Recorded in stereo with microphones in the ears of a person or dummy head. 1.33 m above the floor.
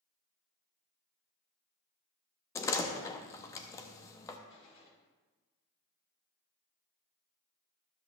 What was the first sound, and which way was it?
A door slam, 20° left (ahead or behind).